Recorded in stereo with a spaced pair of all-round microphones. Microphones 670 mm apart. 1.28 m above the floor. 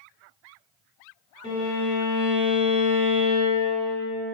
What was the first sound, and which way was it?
A violin, 25° left (ahead or behind).